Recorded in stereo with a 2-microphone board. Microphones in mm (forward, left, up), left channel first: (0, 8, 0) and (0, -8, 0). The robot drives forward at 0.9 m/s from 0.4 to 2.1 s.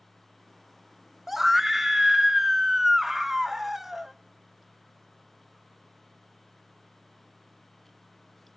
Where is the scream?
10° right (ahead or behind), 1.0 m.